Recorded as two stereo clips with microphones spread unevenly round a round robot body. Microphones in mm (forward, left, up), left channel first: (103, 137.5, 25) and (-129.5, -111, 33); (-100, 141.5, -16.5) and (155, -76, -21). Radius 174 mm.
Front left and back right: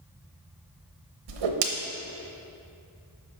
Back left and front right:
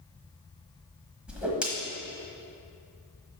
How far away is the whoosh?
About 1.1 m.